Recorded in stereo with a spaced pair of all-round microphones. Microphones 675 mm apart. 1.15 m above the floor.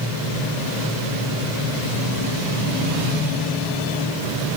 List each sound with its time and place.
Only background noise.